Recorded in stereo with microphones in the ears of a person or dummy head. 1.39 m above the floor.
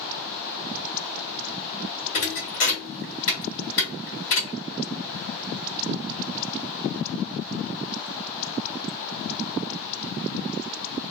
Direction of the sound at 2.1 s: 45° left (ahead or behind).